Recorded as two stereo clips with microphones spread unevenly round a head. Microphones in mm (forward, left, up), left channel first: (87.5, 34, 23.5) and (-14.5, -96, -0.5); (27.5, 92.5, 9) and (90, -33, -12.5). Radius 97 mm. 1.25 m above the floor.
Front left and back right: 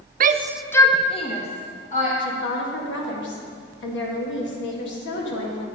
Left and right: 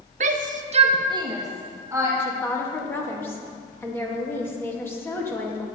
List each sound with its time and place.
0.2 s a shout: 105° right, 0.6 m; by 2.1 s 5° left, 2.5 m
2.2 s a woman speaking: 40° left, 2.0 m